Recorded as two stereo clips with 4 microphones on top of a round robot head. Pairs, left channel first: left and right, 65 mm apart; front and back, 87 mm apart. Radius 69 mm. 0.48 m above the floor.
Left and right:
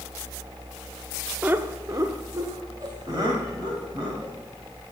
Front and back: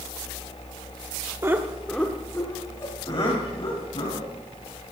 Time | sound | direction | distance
1.4 | laughter | 140° right | 1.1 m